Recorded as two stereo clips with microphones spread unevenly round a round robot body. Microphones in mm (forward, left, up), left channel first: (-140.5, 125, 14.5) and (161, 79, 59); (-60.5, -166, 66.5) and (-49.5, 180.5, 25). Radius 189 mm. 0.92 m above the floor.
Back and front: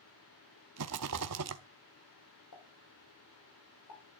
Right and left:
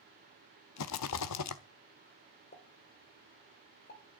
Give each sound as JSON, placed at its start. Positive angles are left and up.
{"t": 0.8, "sound": "a rattle", "azimuth_deg": -50, "distance_m": 0.6}
{"t": 2.5, "sound": "a pop", "azimuth_deg": -155, "distance_m": 3.5}